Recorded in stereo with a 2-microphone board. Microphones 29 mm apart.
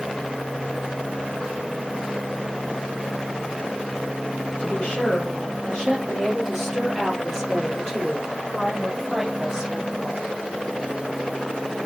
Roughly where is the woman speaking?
Left.